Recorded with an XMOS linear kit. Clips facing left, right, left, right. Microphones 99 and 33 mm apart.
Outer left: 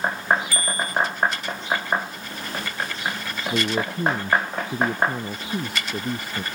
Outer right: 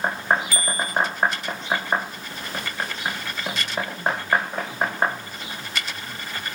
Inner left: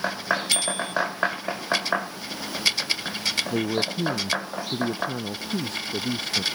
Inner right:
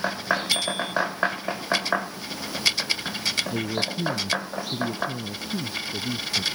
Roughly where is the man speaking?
Left.